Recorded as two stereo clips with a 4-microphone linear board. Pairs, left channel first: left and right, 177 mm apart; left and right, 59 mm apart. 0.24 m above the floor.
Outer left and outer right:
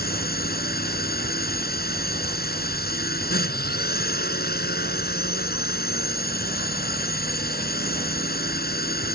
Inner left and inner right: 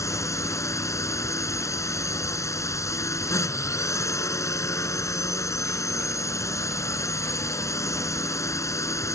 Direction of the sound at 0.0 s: 60° left (ahead or behind).